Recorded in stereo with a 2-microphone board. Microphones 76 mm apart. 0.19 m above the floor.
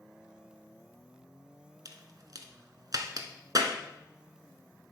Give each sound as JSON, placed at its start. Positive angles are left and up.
{"t": 1.9, "sound": "a crack", "side_deg": -55, "distance_m": 1.1}